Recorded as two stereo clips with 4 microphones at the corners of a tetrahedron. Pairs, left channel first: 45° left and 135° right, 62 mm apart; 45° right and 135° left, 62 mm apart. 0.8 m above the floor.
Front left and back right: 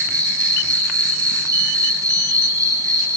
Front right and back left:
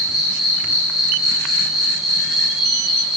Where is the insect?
140° right, 7 m.